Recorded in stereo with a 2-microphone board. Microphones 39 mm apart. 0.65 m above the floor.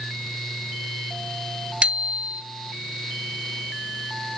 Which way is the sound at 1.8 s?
25° right (ahead or behind).